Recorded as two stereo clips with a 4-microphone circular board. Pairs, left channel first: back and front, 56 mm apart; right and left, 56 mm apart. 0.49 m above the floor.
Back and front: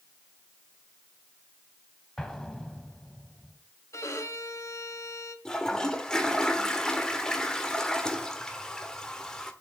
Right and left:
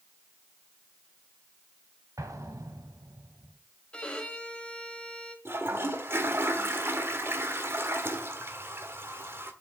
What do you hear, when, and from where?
2.2 s an explosion: 100° left, 1.2 m
3.9 s a violin: 160° right, 1.4 m
5.5 s a toilet flushing: 110° left, 1.2 m